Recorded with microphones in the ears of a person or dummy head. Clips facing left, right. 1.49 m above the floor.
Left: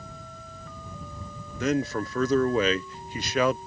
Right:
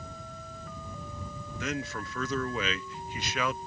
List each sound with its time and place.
1.6 s a man speaking: 45° left (ahead or behind)